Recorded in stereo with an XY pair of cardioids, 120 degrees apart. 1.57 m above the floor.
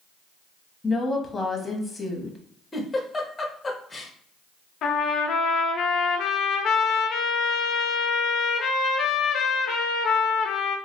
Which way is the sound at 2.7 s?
20° left.